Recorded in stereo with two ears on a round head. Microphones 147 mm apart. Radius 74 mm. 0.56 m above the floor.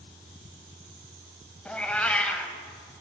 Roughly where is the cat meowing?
Centre.